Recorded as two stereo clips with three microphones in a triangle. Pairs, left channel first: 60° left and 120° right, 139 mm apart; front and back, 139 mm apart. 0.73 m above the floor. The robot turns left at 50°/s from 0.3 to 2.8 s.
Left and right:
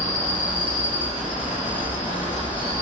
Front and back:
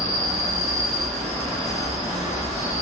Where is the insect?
130° left, 1.6 m; by 2.8 s 5° left, 1.6 m.